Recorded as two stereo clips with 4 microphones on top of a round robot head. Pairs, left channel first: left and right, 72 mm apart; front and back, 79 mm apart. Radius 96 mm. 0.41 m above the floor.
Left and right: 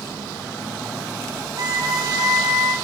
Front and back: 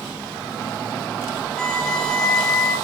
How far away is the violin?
About 1.1 m.